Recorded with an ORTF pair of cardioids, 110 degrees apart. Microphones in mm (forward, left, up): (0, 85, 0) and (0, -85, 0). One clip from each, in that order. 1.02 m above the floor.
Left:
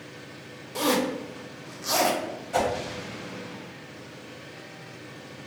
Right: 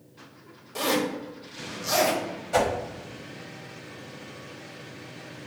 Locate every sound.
0.8 s a zipper: 10° left, 0.9 m
2.5 s a whoosh: 30° right, 0.8 m